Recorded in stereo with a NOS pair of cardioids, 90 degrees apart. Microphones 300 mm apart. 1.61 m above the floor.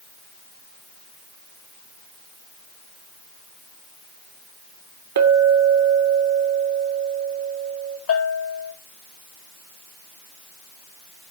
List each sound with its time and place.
5.2 s a clink: 65° right, 2.5 m
8.1 s a bell: 50° left, 3.5 m